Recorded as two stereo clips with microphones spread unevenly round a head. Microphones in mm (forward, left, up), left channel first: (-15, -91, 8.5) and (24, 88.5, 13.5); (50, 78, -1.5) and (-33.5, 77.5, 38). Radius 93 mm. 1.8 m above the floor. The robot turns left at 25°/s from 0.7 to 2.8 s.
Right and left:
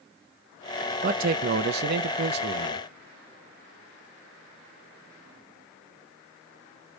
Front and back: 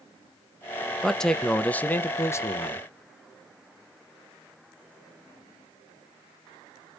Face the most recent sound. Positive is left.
turn(degrees=65)